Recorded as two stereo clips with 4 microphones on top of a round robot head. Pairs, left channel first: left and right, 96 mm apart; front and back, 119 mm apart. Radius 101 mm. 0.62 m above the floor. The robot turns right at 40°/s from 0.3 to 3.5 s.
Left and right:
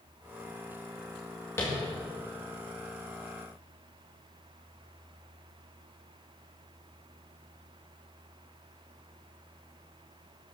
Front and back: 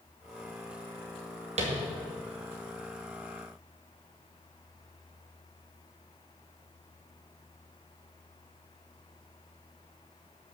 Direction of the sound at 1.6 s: 160° left.